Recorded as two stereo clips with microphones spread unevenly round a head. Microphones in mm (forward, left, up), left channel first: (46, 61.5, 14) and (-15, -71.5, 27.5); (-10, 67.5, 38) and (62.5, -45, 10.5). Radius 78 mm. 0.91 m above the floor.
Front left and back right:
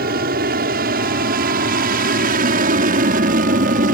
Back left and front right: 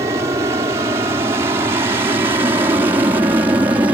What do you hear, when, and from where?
0.0 s an aircraft: 115° right; by 4.0 s 125° right